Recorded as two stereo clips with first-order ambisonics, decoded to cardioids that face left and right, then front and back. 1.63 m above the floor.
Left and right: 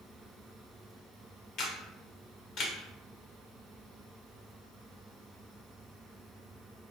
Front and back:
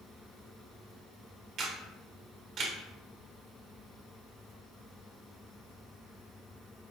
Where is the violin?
No violin in this recording.